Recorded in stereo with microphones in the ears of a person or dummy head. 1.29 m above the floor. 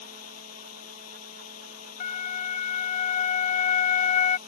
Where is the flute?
40° left (ahead or behind).